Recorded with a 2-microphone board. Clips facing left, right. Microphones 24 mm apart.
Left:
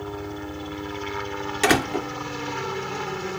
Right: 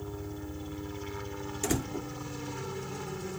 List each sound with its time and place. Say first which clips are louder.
0.0 s a helicopter: left 8 dB; 40° left (ahead or behind)
1.6 s a door slam: left 12 dB; 75° left (ahead or behind)